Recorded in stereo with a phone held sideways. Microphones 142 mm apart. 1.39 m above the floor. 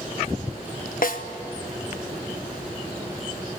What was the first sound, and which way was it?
A snare drum, 70° left (ahead or behind).